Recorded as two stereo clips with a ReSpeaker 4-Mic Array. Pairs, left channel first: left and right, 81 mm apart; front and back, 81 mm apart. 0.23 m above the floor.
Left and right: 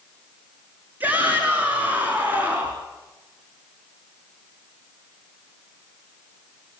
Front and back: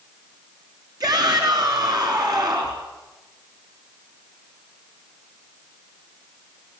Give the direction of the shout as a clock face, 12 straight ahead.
5 o'clock.